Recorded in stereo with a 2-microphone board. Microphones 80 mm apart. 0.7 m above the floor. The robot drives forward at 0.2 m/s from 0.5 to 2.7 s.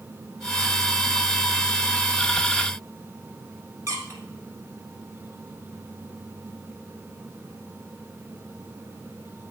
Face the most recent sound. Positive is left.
turn(degrees=-45)  # may be behind; listen again after turning